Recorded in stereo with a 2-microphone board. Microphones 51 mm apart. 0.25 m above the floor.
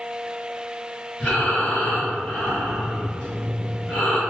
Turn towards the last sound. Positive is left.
turn(degrees=15)  # may be behind; listen again after turning